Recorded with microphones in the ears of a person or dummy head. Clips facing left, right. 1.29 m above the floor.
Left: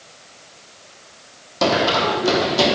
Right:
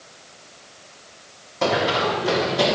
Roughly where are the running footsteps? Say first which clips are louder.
Left 3 dB; left.